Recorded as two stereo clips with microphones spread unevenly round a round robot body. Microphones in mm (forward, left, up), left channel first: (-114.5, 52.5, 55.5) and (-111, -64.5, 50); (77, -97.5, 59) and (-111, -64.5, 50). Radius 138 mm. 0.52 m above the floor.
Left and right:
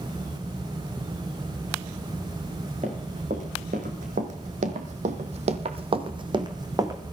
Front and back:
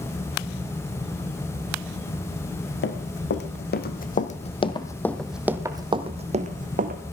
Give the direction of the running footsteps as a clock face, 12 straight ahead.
1 o'clock.